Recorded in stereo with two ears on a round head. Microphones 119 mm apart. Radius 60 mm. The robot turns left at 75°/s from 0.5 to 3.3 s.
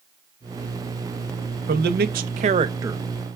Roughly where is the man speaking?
Ahead right.